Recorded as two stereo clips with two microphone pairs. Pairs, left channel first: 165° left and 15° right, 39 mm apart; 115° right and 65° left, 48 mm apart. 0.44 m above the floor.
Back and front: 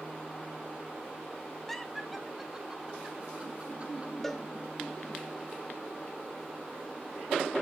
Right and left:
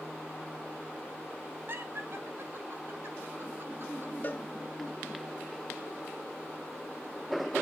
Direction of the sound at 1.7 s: 85° left.